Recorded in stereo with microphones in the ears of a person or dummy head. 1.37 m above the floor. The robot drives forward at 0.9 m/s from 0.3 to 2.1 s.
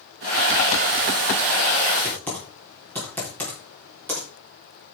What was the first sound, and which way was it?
Typing on a keyboard, 5° left (ahead or behind).